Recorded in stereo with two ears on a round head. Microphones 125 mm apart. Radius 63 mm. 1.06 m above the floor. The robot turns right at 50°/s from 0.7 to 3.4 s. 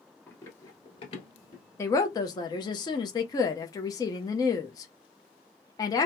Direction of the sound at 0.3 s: 15° left (ahead or behind).